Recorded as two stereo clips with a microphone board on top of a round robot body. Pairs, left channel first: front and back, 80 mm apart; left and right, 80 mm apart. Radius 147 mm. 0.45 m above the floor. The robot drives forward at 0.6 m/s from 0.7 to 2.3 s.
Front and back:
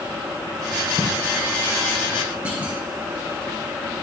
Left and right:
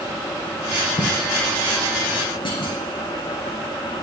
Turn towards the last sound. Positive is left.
turn(degrees=105)